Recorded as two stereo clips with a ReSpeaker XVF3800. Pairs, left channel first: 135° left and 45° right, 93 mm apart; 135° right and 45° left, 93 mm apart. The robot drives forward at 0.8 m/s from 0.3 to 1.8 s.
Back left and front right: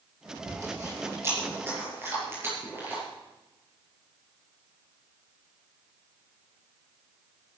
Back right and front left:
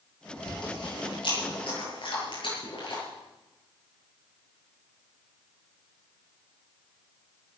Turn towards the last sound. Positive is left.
turn(degrees=-110)